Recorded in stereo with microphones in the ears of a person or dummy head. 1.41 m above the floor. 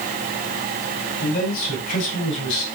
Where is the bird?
I don't hear a bird.